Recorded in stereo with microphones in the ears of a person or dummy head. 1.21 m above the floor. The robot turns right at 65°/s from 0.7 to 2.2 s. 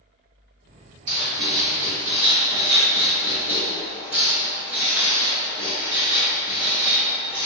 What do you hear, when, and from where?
1.1 s writing: 80° right, 1.7 m; by 7.5 s 5° right (ahead or behind), 1.7 m